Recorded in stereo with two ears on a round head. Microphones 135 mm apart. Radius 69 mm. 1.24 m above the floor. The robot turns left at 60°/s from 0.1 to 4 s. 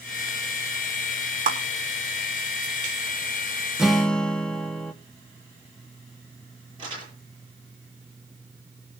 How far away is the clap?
About 3 m.